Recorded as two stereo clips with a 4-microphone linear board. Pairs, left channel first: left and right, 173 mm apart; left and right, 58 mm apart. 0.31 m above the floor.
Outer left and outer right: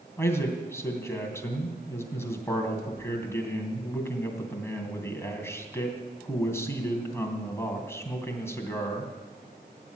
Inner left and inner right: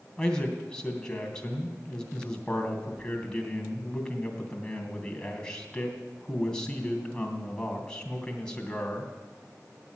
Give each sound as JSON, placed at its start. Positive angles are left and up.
{"t": 0.2, "sound": "a man speaking", "side_deg": 15, "distance_m": 3.0}